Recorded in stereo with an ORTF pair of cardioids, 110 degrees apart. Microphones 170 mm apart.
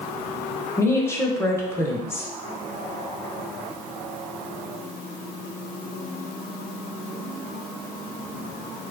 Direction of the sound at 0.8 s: 15° left.